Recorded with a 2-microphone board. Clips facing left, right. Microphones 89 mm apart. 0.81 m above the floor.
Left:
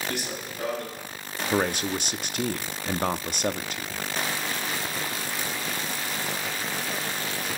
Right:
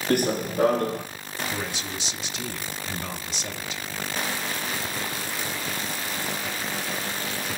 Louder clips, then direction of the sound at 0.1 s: Right 10 dB; 50° right (ahead or behind).